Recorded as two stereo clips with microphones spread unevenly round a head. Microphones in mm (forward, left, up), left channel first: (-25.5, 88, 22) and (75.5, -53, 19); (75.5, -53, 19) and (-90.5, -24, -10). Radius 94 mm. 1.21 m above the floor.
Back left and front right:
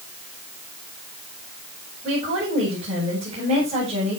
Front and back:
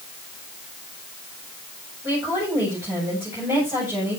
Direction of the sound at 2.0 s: 115° right.